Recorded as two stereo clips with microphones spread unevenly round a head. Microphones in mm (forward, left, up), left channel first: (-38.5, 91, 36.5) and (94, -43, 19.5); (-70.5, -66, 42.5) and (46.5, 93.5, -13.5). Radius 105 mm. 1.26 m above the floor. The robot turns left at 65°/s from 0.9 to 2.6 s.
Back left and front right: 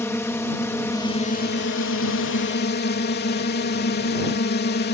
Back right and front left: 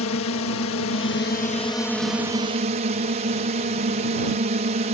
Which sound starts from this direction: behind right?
A drone, at 0.0 s.